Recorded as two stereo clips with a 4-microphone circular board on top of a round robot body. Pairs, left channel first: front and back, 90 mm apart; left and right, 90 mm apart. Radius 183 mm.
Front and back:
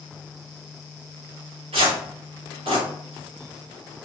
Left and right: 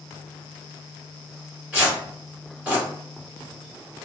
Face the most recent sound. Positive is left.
turn(degrees=-170)